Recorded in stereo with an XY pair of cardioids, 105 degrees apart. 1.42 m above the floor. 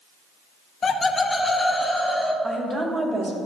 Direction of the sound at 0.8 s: 40° left.